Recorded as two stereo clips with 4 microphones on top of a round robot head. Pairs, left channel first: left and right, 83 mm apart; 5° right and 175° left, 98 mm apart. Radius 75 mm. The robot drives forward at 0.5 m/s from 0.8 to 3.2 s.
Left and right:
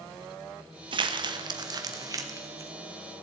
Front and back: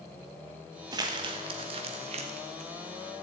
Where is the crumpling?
120° right, 1.2 m; by 2.7 s 145° right, 1.8 m.